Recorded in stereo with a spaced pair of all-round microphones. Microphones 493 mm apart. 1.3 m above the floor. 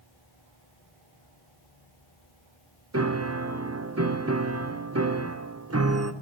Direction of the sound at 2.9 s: 30° right (ahead or behind).